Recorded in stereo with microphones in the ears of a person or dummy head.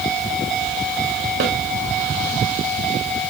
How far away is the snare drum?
About 3.5 m.